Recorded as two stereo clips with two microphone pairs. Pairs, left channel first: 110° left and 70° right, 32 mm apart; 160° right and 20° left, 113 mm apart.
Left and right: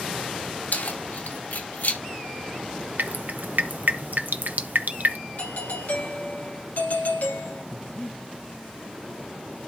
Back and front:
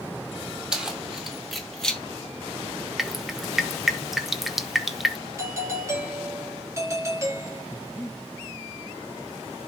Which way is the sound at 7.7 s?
135° left.